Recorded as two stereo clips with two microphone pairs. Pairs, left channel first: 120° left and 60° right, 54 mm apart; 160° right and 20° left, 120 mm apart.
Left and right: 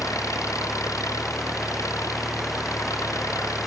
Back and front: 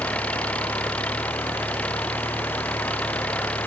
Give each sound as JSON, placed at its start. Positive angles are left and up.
{"t": 0.0, "sound": "an engine running", "azimuth_deg": 120}